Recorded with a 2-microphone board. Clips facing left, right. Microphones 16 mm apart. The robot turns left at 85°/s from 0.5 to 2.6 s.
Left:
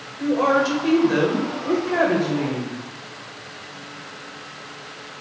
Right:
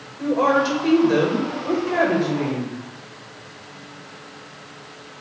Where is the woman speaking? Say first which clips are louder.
Even; 10° right (ahead or behind), 1.0 m; by 2.7 s 10° left (ahead or behind), 1.0 m.